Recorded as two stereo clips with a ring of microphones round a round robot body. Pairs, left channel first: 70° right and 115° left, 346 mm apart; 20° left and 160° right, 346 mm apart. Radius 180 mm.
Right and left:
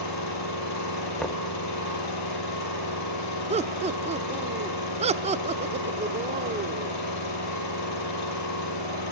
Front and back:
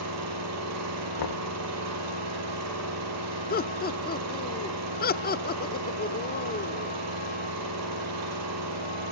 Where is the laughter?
60° left, 0.8 m.